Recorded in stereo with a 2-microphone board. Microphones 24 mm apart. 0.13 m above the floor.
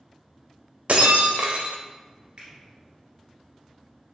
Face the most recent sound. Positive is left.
turn(degrees=-45)  # may be behind; listen again after turning